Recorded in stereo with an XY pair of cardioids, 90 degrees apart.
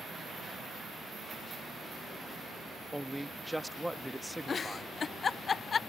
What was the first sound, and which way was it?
A man speaking, 5° right.